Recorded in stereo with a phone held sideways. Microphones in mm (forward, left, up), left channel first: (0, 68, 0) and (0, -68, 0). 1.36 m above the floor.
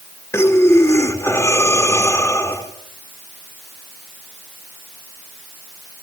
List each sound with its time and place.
0.3 s breathing: 20° left (ahead or behind), 2.5 m